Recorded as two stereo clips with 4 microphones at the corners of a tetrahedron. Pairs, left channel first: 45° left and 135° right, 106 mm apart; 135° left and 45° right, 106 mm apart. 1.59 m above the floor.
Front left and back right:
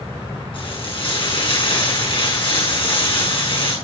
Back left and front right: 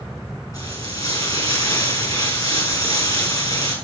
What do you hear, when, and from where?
0.5 s frying: 80° left, 6.5 m